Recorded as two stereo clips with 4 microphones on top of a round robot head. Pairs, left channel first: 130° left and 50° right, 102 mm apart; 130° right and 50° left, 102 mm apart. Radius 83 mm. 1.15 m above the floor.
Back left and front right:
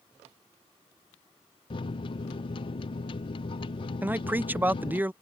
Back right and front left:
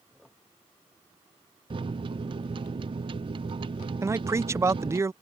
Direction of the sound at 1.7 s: 90° left.